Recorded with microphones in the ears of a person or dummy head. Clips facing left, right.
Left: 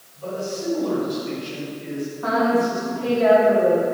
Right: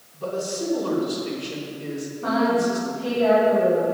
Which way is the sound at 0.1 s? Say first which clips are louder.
Right 1 dB; 85° right.